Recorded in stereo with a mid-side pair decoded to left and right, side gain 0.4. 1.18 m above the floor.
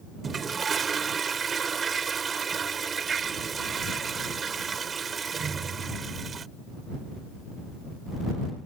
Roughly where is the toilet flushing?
Ahead right.